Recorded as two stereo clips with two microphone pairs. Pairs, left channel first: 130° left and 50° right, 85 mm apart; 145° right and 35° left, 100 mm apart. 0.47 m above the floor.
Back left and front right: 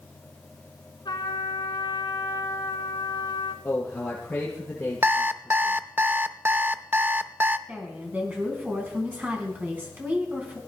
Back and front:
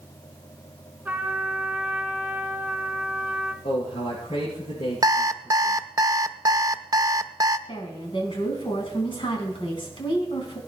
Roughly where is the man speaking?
Behind right.